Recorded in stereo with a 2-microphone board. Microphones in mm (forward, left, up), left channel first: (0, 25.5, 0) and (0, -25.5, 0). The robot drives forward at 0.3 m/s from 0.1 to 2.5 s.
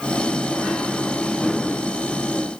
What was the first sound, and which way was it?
Only background noise.